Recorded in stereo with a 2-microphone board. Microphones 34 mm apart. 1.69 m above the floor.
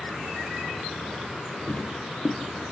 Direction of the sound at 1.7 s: 50° left (ahead or behind).